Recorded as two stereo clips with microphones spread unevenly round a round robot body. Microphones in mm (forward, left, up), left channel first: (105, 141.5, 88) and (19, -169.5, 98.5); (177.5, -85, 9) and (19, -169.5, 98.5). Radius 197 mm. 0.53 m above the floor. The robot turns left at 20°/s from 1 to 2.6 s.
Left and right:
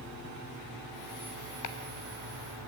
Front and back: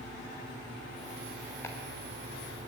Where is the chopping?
90° left, 1.7 m; by 1.8 s 85° left, 1.7 m.